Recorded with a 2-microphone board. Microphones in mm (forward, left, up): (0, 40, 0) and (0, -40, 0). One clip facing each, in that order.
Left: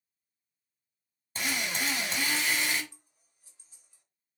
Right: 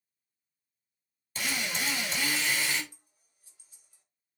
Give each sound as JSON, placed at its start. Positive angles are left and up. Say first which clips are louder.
{"t": 1.4, "sound": "a drill", "louder": "left 1 dB", "side_deg": 30, "distance_m": 1.5}
{"t": 2.9, "sound": "scissors", "louder": "left 2 dB", "side_deg": 30, "distance_m": 1.7}